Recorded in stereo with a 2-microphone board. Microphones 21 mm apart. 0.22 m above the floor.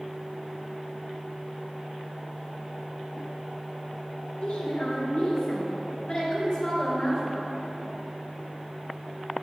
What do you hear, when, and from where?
4.4 s a woman speaking: 65° left (ahead or behind), 4 m; by 7.4 s 30° left (ahead or behind), 3 m